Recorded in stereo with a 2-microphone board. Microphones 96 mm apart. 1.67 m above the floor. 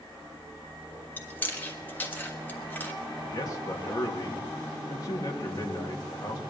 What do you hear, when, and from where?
1.2 s chewing: 20° left (ahead or behind), 1.4 m
3.2 s a man speaking: 40° left (ahead or behind), 3 m